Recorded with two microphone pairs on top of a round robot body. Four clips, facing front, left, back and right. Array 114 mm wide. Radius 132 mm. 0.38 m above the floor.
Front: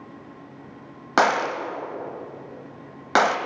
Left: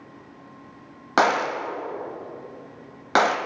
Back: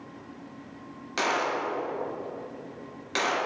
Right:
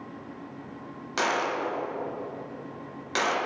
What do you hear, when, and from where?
1.2 s a gunshot: 45° left, 0.9 m